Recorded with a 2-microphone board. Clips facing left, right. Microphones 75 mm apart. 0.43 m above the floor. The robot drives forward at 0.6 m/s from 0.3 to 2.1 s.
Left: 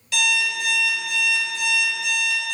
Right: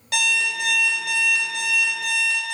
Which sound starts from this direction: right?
An alarm clock, at 0.1 s.